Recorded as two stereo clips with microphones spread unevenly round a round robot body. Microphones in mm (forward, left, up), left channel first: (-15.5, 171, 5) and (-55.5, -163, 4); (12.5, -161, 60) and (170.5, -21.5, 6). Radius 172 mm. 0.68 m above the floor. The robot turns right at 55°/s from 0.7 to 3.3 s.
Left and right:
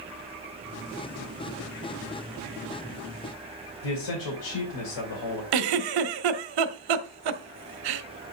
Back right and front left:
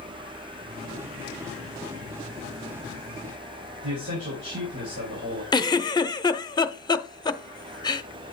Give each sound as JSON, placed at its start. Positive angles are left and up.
{"t": 3.8, "sound": "a man speaking", "azimuth_deg": 85, "distance_m": 3.0}
{"t": 5.5, "sound": "a giggle", "azimuth_deg": -65, "distance_m": 0.9}